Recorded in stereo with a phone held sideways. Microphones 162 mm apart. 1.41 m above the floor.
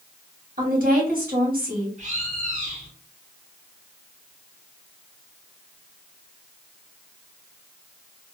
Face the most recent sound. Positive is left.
turn(degrees=-50)  # may be behind; listen again after turning